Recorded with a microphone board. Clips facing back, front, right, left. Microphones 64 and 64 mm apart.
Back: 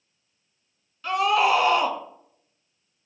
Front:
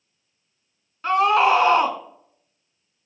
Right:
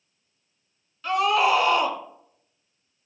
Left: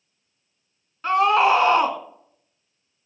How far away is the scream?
About 2.0 m.